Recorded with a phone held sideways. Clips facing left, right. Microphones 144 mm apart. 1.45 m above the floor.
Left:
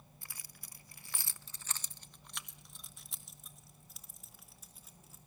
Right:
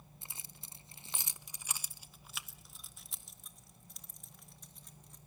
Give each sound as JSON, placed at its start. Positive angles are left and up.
{"t": 0.2, "sound": "keys jangling", "side_deg": -20, "distance_m": 0.6}